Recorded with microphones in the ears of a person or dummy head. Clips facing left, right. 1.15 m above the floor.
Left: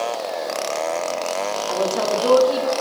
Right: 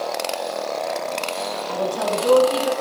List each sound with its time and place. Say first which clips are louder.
1.7 s a woman speaking: left 1 dB; 75° left (ahead or behind), 2 m